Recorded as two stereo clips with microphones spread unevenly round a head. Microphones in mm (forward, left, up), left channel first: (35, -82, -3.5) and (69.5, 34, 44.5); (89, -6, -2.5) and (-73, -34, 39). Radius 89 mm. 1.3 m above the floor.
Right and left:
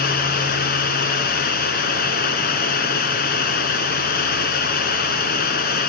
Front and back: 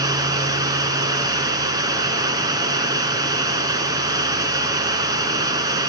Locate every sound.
0.0 s running water: 110° right, 3 m